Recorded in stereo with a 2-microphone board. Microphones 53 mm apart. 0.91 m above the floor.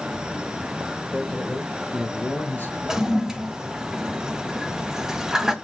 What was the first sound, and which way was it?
A man speaking, centre (ahead or behind).